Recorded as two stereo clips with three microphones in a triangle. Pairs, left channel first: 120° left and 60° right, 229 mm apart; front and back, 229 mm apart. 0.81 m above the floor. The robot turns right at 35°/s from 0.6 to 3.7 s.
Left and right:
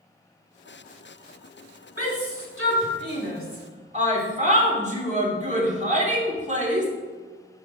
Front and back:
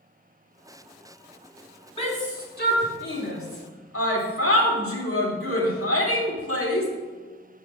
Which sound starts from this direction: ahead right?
A shout, at 2.0 s.